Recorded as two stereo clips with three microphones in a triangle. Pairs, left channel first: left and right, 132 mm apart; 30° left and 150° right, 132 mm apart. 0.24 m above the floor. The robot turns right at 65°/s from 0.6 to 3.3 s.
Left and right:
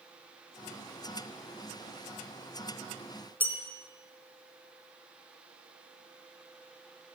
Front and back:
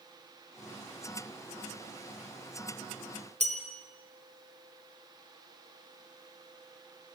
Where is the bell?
165° right, 3.5 m.